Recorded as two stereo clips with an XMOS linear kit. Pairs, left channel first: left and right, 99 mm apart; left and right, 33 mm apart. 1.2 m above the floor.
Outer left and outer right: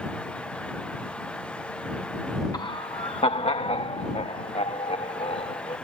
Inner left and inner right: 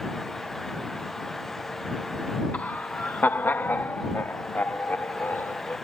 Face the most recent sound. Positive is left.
turn(degrees=85)